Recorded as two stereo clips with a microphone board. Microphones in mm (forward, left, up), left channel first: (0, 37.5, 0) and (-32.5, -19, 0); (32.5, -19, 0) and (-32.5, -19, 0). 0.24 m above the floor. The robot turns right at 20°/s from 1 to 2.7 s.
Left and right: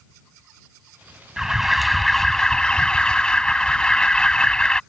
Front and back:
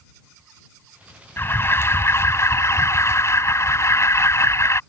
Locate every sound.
1.4 s an alarm: 40° right; by 4.8 s 10° right